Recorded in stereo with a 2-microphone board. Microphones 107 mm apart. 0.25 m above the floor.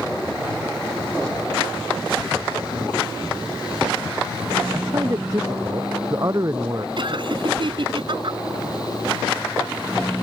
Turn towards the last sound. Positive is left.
turn(degrees=-55)  # may be behind; listen again after turning